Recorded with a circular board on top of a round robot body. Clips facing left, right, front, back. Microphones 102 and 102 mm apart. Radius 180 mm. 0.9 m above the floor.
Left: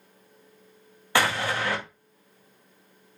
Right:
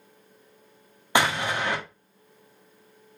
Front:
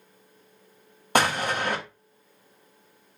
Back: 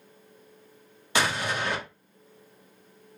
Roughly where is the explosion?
Ahead.